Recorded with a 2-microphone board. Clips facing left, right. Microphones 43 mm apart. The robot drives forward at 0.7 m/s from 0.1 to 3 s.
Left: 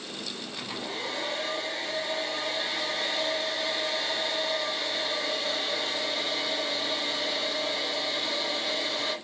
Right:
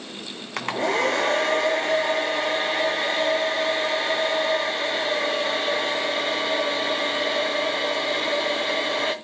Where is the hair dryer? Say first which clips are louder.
Right 14 dB; 80° right, 1.5 m; by 9.1 s 40° right (ahead or behind), 2.5 m.